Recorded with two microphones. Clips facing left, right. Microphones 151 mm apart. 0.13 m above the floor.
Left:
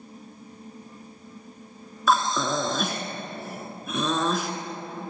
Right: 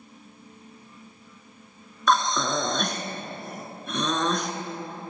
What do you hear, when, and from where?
2.1 s breathing: 5° left (ahead or behind), 1.4 m